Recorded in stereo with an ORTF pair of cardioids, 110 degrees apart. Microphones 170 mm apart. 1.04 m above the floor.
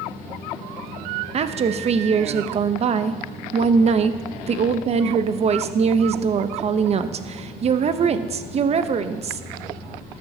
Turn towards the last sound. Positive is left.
turn(degrees=-40)